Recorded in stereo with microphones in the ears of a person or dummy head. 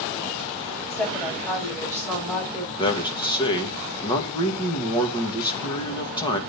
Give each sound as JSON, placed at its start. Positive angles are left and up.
{"t": 0.9, "sound": "a woman speaking", "side_deg": 25, "distance_m": 6.5}
{"t": 2.8, "sound": "a man speaking", "side_deg": 35, "distance_m": 1.6}